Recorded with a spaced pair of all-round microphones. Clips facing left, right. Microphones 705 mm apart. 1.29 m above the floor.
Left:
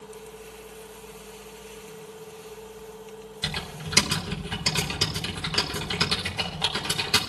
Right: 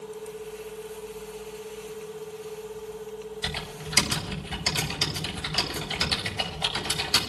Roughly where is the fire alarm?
No fire alarm in this recording.